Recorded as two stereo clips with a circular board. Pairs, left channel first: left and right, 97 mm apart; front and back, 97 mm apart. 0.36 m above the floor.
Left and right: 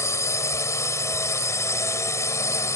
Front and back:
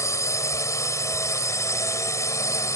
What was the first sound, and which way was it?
A drone, 45° left.